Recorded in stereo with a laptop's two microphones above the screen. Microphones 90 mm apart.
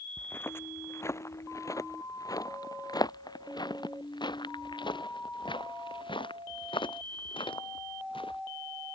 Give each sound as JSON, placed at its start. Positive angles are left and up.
{"t": 0.2, "sound": "footsteps", "side_deg": 20}